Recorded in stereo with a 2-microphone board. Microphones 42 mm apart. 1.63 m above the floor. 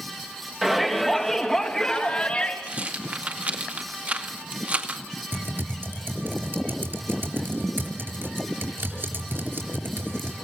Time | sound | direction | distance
0.6 | a shout | 5° right (ahead or behind) | 3 m
2.7 | a rattle | 35° right (ahead or behind) | 2 m
5.3 | typing on a keyboard | 55° right (ahead or behind) | 5 m